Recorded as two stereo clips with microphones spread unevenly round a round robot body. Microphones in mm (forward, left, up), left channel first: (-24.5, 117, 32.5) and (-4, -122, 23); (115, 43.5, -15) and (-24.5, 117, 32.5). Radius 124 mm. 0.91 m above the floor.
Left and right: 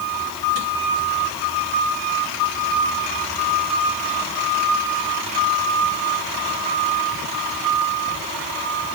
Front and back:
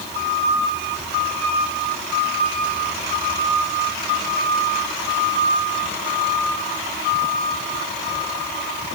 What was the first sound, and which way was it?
Only background noise.